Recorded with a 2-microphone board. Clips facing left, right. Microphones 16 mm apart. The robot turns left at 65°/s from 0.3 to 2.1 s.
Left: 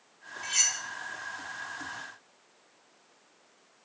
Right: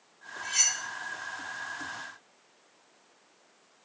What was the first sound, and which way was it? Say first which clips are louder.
Cutlery clinking: even; 20° left (ahead or behind).